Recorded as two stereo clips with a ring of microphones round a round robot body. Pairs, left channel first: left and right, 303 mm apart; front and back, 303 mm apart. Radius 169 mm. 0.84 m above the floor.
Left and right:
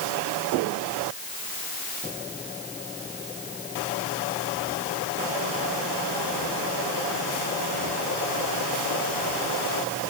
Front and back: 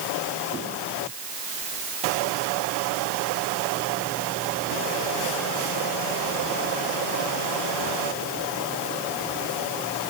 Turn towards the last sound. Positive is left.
No sound to turn to.